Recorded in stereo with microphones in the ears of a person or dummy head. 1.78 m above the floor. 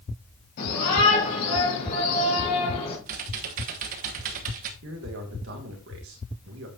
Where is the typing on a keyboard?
50° right (ahead or behind), 1.2 m.